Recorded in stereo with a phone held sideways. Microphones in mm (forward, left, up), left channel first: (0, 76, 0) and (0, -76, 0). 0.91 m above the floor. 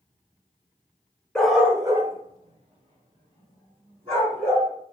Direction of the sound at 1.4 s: 5° left (ahead or behind).